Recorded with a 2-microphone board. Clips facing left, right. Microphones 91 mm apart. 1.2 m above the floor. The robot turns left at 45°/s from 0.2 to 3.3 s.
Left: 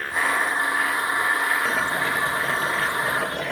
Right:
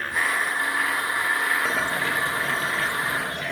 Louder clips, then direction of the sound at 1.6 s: Left 1 dB; 175° right.